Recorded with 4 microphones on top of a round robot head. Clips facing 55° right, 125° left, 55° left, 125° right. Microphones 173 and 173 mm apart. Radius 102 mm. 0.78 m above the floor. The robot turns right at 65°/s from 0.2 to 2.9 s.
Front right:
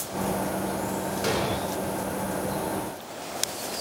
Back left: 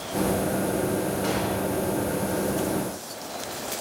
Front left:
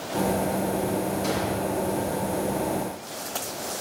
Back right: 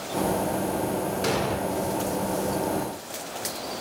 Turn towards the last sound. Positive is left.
turn(degrees=-5)